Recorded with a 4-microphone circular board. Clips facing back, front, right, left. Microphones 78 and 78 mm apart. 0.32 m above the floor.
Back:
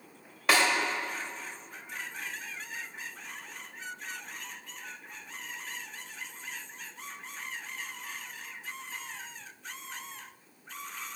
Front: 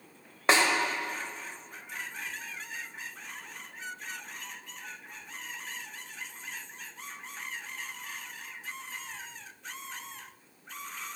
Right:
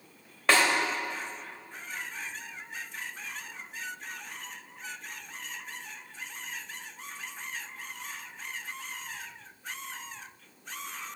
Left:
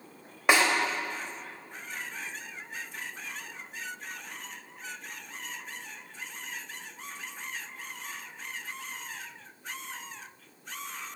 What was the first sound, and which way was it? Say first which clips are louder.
A snare drum: front 1 dB, left 1 dB; 30° left.